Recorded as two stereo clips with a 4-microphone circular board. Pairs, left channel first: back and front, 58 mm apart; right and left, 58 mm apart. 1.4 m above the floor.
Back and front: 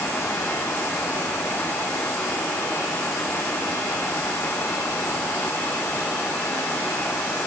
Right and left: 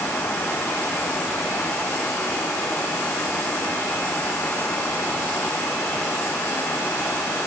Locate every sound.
Only background noise.